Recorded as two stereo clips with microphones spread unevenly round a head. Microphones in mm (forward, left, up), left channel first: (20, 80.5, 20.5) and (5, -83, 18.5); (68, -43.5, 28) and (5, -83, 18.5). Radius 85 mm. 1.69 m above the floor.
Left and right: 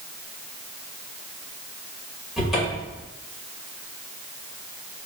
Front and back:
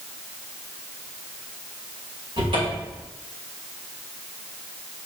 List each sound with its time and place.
2.4 s a cupboard door: 175° left, 2.5 m